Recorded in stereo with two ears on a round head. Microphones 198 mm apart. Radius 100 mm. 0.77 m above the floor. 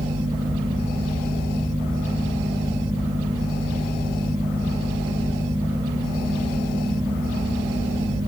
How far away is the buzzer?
No buzzer in this recording.